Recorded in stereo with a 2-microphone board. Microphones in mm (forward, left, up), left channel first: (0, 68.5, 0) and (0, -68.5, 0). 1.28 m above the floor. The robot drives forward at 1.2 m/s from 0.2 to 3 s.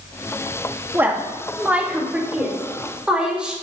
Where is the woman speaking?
15° right (ahead or behind), 1.9 m; by 3.5 s 5° right (ahead or behind), 4.5 m.